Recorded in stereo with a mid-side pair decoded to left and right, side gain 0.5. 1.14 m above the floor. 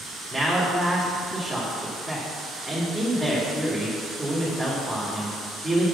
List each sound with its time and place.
0.3 s a man speaking: straight ahead, 2.5 m